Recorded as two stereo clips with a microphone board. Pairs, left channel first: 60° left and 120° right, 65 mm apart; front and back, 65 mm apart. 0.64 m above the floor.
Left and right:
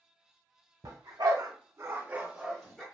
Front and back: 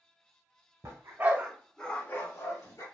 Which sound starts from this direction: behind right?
A dog barking, at 0.8 s.